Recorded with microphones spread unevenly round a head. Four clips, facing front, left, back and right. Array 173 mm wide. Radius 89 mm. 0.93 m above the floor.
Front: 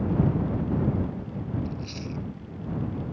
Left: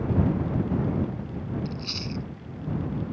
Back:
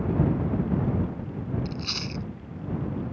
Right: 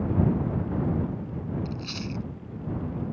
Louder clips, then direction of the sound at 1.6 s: Even, even; straight behind.